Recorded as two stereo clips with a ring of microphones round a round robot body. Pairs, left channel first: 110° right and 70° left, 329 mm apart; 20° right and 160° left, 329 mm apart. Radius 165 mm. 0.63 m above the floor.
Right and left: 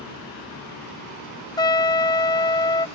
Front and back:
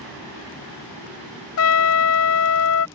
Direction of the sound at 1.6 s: 40° right.